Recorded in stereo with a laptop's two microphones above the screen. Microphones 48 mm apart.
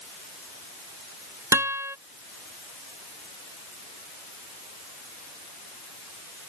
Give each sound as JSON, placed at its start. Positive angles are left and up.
{"t": 1.5, "sound": "a guitar", "side_deg": -60}